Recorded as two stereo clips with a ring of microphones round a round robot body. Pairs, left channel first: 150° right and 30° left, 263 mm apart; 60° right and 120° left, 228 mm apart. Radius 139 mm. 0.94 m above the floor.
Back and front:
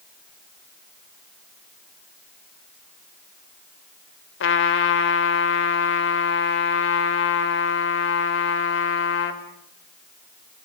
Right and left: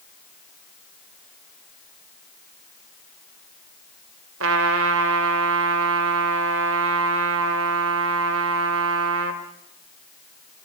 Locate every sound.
4.4 s a trumpet: 165° left, 2.0 m